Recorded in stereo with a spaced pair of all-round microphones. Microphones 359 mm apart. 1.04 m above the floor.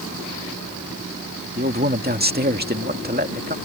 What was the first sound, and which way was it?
A man speaking, 25° right (ahead or behind).